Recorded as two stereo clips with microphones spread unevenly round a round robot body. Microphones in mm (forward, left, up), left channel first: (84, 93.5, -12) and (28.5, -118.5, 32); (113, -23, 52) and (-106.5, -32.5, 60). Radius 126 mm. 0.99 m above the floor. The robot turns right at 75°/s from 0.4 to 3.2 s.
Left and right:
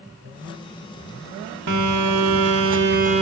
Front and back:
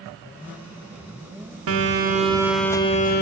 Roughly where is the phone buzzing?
Behind right.